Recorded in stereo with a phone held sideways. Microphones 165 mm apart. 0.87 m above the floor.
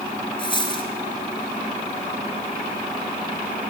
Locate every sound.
0.4 s a dropped coin: 30° left (ahead or behind), 1.4 m